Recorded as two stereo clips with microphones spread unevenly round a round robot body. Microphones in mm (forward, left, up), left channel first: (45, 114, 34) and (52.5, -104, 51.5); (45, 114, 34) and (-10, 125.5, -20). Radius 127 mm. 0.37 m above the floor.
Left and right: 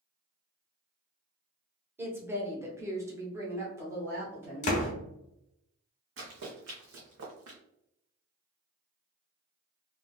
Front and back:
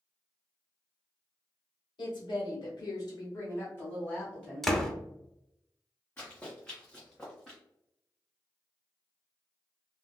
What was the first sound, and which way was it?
A woman speaking, 10° right.